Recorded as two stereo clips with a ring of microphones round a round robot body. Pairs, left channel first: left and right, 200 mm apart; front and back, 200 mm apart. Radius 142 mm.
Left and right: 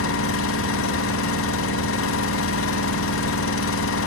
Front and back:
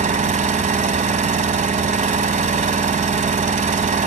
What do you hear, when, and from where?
0.0 s an engine running: 125° left, 1.3 m